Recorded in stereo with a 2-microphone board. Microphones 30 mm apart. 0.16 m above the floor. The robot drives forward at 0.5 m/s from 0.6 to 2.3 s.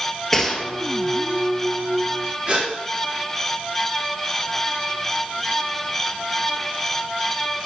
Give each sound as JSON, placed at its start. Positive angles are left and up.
{"t": 0.3, "sound": "a gunshot", "side_deg": 10, "distance_m": 1.3}
{"t": 2.5, "sound": "a gasp", "side_deg": -40, "distance_m": 3.0}